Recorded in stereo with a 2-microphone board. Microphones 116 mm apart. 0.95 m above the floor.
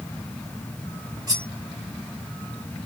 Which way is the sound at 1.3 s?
35° right (ahead or behind).